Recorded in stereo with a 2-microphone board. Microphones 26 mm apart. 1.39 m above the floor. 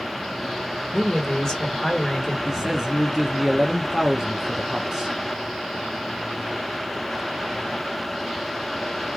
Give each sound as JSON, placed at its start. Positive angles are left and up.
{"t": 0.9, "sound": "a man speaking", "side_deg": 30, "distance_m": 1.3}
{"t": 2.5, "sound": "a man speaking", "side_deg": -25, "distance_m": 0.7}